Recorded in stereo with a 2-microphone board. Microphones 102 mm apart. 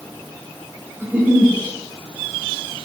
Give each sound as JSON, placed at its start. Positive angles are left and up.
{"t": 1.0, "sound": "a giggle", "side_deg": -20, "distance_m": 2.0}